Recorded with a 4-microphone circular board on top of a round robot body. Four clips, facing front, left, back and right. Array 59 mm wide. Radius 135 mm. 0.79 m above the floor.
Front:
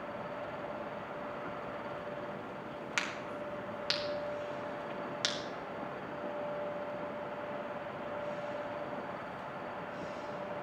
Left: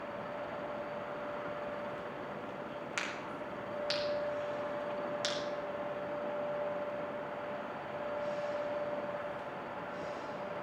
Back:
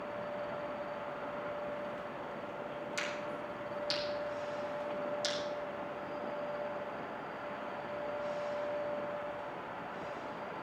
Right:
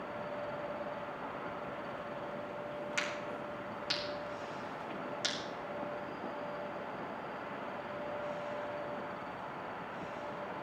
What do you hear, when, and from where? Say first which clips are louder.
3.0 s a crack: right 1 dB, front 3 dB; 5° left, 4 m